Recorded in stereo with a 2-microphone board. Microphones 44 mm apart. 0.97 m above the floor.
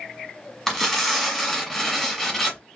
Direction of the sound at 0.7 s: Centre (ahead or behind).